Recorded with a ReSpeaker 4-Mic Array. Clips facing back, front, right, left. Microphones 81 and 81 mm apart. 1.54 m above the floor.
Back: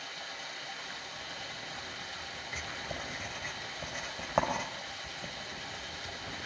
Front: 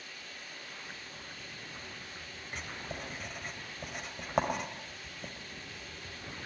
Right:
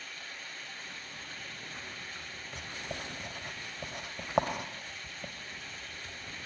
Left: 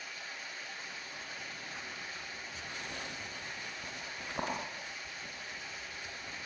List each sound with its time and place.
0.0 s running water: 175° left, 9 m
2.5 s writing: 95° right, 2.5 m